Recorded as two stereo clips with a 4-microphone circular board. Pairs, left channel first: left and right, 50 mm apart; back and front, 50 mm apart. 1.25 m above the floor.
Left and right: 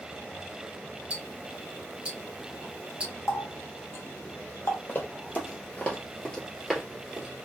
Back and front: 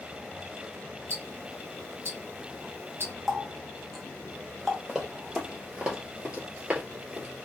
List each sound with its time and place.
1.1 s ticking: 25° right, 0.8 m
3.3 s a running tap: 90° left, 0.9 m
4.9 s running footsteps: 80° left, 1.6 m; by 7.3 s 25° right, 1.4 m